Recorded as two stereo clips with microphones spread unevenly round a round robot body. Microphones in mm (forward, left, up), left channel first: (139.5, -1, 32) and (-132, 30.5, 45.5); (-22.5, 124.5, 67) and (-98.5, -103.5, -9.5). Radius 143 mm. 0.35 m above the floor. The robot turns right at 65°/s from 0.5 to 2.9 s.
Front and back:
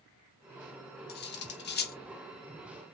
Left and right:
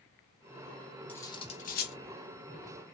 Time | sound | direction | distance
1.1 | cutlery clinking | 30° right | 0.8 m